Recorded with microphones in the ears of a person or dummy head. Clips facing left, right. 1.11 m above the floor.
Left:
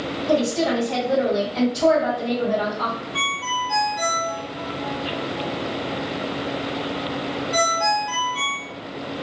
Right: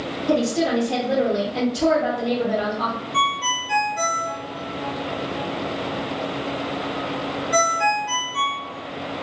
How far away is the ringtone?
About 1.1 m.